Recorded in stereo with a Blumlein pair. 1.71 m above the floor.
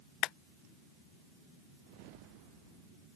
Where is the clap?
35° left.